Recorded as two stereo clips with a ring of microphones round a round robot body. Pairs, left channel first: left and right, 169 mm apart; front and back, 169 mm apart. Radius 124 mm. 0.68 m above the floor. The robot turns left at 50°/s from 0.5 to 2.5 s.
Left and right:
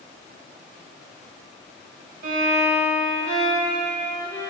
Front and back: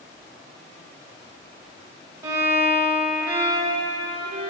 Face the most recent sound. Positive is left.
turn(degrees=-125)